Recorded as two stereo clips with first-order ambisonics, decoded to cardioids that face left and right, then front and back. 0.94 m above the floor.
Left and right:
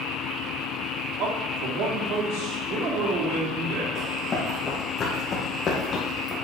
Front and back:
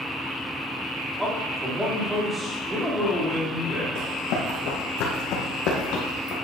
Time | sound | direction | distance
1.2 | a man speaking | 95° right | 2.0 m
4.0 | running footsteps | 20° left | 3.5 m